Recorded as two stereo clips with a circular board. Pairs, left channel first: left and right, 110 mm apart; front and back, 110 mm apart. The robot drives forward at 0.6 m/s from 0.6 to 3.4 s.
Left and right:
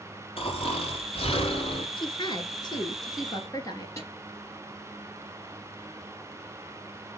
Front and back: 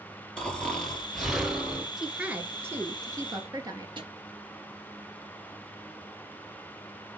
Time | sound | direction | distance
0.4 | snoring | 80° left | 2.5 m
2.0 | a woman speaking | 95° left | 1.4 m
4.0 | a snare drum | 150° left | 3 m